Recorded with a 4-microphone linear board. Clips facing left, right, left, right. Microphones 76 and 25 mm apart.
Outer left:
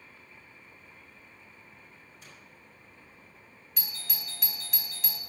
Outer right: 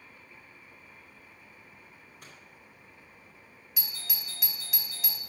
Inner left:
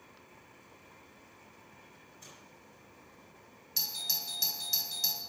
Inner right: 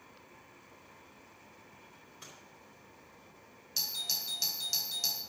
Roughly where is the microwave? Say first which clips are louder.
Outer right 2 dB, inner right 2 dB; right.